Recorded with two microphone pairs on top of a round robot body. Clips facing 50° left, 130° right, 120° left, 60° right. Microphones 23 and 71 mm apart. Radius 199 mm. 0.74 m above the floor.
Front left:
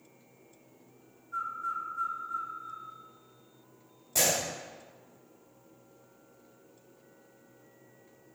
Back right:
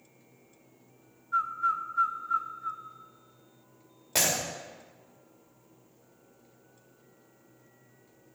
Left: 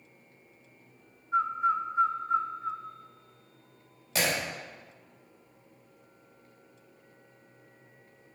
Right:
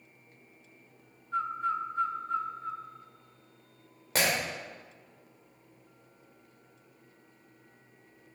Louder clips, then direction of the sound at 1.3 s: Back right 7 dB, left 4 dB; 160° right.